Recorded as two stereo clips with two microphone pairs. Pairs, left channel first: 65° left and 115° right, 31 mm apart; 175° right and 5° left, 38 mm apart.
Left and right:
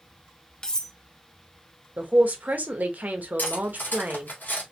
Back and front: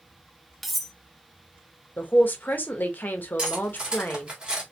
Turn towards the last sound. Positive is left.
turn(degrees=70)